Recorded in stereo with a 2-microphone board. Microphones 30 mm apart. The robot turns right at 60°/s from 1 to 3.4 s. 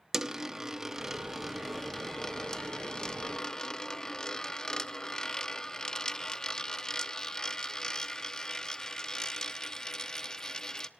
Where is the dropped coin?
10° right (ahead or behind), 0.8 m; by 10.9 s 25° left (ahead or behind), 0.8 m.